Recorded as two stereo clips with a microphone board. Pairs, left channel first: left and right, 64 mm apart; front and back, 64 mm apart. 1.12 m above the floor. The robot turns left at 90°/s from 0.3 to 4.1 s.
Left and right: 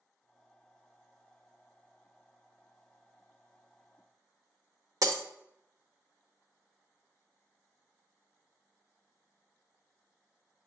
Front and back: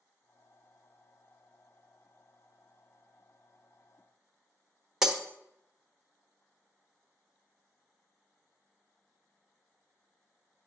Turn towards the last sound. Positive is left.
turn(degrees=-100)